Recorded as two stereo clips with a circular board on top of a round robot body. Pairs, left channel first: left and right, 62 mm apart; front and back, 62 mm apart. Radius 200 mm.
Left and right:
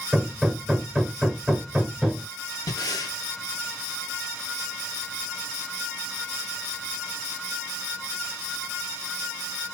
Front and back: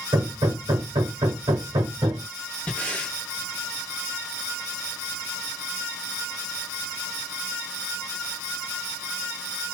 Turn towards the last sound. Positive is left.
turn(degrees=70)